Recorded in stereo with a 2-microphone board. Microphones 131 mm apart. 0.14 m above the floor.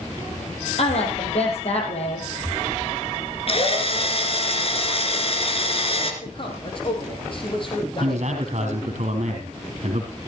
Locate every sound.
0.8 s a woman speaking: 55° left (ahead or behind), 5 m
3.5 s a drill: 45° left (ahead or behind), 2.5 m
6.2 s a man speaking: 40° left (ahead or behind), 5 m
8.0 s a man speaking: 60° right (ahead or behind), 4 m